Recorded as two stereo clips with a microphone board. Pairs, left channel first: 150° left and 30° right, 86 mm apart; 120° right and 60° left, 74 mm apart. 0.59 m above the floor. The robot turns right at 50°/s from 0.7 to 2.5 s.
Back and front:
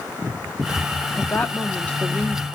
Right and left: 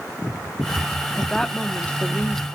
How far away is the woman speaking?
About 0.8 m.